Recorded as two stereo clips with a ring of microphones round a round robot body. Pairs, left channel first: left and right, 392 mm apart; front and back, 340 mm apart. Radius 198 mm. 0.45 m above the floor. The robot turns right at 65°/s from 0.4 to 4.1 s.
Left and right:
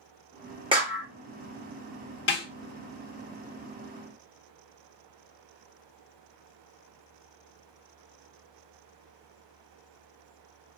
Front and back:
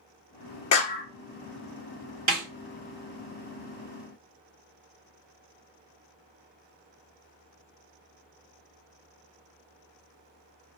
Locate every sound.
0.7 s a clap: 20° right, 0.8 m; by 1.1 s 5° left, 0.8 m
2.3 s a snare drum: 130° left, 1.3 m; by 2.5 s 145° left, 1.3 m